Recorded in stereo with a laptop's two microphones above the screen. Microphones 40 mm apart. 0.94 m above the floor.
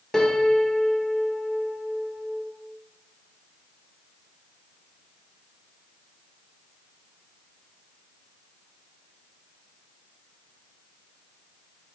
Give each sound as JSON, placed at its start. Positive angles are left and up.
{"t": 0.1, "sound": "a piano", "side_deg": 10, "distance_m": 0.6}